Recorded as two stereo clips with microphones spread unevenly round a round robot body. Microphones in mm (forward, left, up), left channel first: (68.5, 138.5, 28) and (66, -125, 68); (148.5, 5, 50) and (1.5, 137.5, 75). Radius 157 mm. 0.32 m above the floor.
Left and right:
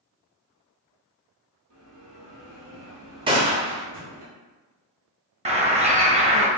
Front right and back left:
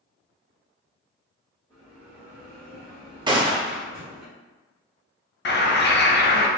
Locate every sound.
1.7 s a bell: 115° right, 1.6 m
3.3 s a gunshot: 160° right, 0.6 m
5.5 s a bird: 20° right, 0.9 m